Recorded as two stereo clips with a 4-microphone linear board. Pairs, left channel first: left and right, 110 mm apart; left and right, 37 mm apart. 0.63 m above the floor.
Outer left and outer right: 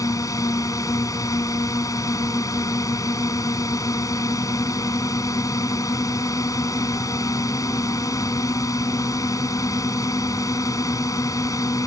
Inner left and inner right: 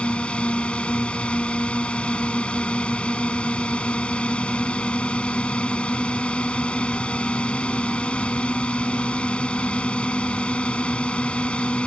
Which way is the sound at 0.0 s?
30° left (ahead or behind).